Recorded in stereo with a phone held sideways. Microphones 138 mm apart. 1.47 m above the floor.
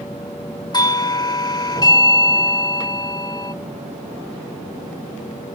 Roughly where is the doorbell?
Left.